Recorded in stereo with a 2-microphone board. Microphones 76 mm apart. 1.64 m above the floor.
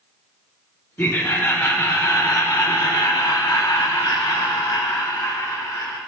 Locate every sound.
1.0 s laughter: 35° left (ahead or behind), 2 m; by 6.0 s 65° left (ahead or behind), 2.5 m